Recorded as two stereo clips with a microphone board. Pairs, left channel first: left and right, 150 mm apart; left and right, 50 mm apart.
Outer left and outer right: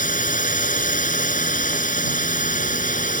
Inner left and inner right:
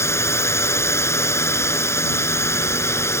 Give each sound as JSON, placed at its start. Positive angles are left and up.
{"t": 0.0, "sound": "a drone", "side_deg": 60}